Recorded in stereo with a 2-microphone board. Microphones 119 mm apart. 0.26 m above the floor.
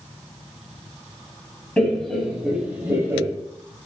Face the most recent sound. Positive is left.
turn(degrees=-25)  # may be behind; listen again after turning